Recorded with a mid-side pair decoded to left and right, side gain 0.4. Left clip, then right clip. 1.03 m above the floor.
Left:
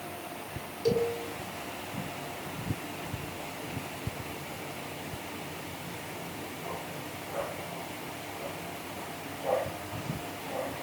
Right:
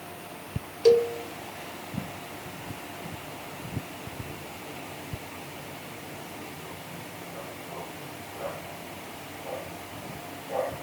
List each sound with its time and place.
0.8 s a cowbell: 60° right, 1.3 m